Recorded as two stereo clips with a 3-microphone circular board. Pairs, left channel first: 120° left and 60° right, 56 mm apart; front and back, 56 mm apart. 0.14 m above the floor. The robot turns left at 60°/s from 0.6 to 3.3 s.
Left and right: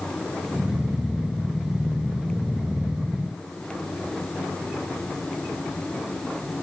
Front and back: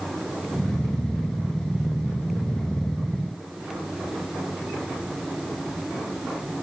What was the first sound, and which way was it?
Only background noise.